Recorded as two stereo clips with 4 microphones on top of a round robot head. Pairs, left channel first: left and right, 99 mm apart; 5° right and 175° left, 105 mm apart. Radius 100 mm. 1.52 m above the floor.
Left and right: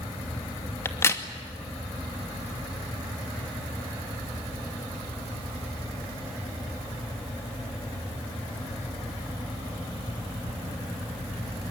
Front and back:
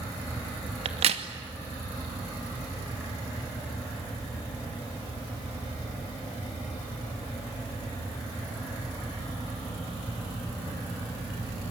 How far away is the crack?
About 2.5 m.